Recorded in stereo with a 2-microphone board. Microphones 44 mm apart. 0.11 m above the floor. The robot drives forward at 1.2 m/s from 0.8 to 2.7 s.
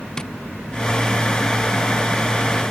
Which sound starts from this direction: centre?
Tapping, at 0.2 s.